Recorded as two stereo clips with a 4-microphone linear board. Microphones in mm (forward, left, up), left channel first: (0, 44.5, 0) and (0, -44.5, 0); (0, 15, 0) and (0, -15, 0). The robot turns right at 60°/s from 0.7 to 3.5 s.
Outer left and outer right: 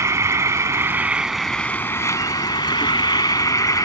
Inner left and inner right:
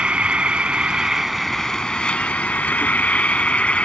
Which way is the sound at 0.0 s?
40° right.